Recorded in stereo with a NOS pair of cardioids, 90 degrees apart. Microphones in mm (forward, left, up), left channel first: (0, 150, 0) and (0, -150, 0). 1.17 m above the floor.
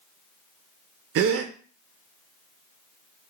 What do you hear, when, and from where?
1.1 s a gasp: 60° right, 0.5 m